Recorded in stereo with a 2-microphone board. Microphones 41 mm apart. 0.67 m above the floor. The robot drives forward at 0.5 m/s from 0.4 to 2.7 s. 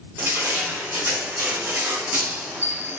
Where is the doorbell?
No doorbell in this recording.